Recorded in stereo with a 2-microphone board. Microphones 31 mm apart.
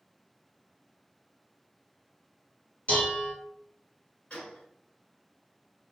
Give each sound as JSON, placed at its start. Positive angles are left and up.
{"t": 2.9, "sound": "dishes clattering", "side_deg": 55, "distance_m": 1.4}
{"t": 4.3, "sound": "a gunshot", "side_deg": 40, "distance_m": 1.4}